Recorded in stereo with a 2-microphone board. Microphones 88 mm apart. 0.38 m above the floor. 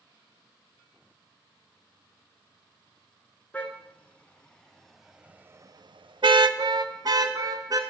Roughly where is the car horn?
Centre.